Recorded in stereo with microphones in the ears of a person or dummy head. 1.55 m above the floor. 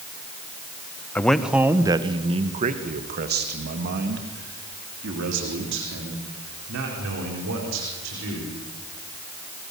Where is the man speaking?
10° left (ahead or behind), 1.1 m; by 8.6 s 70° right (ahead or behind), 5.5 m.